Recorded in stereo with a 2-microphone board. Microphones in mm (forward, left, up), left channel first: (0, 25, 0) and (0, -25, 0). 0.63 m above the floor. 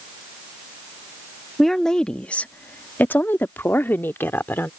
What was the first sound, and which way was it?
A woman speaking, 5° left (ahead or behind).